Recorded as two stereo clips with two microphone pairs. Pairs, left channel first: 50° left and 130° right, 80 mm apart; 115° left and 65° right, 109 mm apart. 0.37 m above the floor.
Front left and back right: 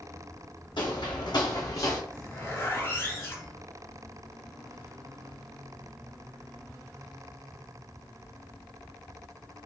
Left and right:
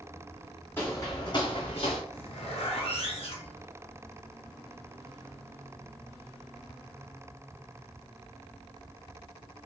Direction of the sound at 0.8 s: 45° left.